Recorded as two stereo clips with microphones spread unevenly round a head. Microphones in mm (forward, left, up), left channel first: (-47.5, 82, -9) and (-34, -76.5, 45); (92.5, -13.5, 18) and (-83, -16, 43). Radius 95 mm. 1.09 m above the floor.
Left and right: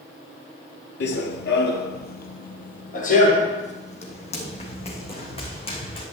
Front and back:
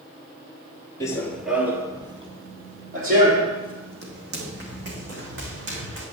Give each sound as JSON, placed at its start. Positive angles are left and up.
{"t": 1.0, "sound": "running footsteps", "azimuth_deg": 75, "distance_m": 1.3}